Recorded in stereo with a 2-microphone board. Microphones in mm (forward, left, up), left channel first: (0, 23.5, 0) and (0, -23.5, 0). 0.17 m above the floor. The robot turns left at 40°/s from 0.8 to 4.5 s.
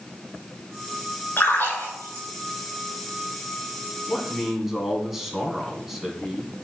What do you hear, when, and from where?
1.4 s a splash: 55° left (ahead or behind), 4 m; by 2.2 s 90° left, 4 m
4.1 s a man speaking: 10° right (ahead or behind), 1.6 m; by 6.5 s 5° right (ahead or behind), 1.6 m